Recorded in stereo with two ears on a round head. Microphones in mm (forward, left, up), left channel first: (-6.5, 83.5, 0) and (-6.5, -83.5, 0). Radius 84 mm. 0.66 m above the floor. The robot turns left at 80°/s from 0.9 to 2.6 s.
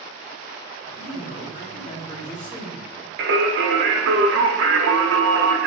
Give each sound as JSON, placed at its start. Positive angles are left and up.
{"t": 1.0, "sound": "a man speaking", "azimuth_deg": 130, "distance_m": 1.2}
{"t": 3.2, "sound": "singing", "side_deg": -65, "distance_m": 0.7}